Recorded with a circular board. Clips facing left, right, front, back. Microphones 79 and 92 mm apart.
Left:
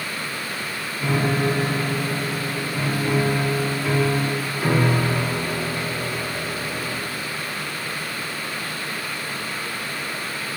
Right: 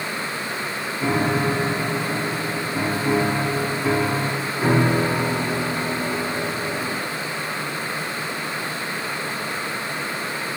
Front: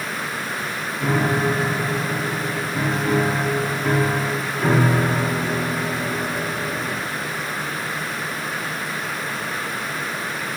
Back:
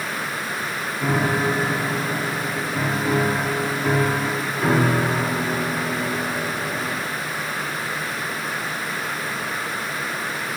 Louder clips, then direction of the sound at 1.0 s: Right 1 dB, front 1 dB; 100° right.